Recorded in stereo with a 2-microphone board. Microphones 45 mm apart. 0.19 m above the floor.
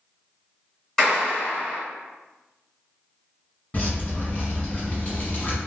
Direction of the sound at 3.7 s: 35° left (ahead or behind).